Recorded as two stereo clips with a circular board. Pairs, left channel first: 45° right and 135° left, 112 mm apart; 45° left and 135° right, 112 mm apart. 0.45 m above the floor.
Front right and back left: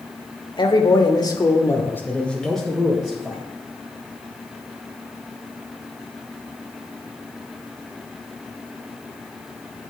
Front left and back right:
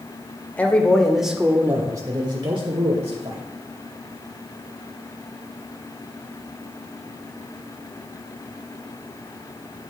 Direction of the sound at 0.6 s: 25° right.